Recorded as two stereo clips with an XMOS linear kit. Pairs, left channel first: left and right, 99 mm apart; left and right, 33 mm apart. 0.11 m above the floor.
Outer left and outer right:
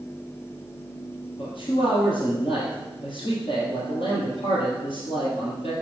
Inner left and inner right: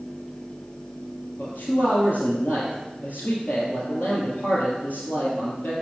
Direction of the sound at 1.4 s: 60° left (ahead or behind).